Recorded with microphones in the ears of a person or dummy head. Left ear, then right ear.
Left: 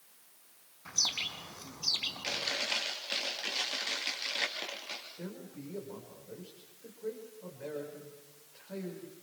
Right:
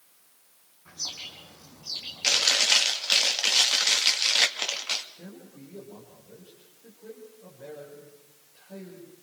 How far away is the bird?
About 3 m.